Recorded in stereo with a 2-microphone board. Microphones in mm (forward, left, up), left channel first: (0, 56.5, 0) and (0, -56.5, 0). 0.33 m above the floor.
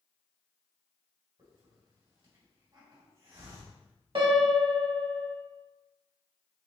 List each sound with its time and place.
1.4 s a hiss: 50° right (ahead or behind), 2 m
4.2 s a piano: 50° right (ahead or behind), 1.1 m